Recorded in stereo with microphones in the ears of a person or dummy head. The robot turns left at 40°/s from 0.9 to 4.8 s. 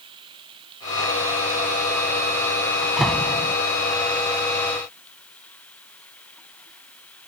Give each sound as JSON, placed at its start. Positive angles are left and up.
{"t": 0.0, "sound": "running water", "azimuth_deg": -30}
{"t": 2.8, "sound": "a door slam", "side_deg": -10}